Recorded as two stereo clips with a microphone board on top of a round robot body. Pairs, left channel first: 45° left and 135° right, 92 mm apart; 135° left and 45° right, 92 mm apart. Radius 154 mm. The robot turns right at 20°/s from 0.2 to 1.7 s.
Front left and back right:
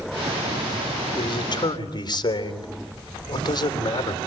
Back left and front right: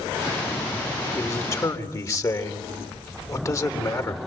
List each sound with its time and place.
1.1 s a man speaking: 70° left, 3.5 m; by 4.2 s 85° left, 3.5 m